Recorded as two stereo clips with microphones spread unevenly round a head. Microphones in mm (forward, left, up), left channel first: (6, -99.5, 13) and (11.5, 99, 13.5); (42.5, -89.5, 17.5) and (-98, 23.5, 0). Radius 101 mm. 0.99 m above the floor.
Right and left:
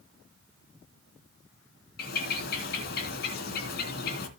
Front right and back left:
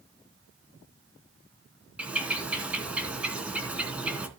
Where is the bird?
135° right, 2.5 m.